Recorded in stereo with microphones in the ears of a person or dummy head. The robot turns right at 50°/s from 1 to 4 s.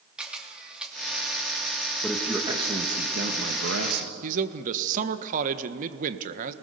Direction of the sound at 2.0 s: 175° left.